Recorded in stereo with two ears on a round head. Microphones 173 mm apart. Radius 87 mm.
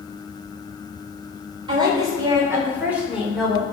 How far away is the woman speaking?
About 4.5 m.